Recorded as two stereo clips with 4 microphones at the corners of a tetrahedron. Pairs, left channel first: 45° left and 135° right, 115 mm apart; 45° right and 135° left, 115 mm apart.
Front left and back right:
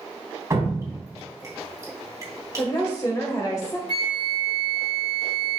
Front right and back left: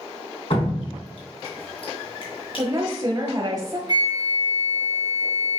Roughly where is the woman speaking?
Left.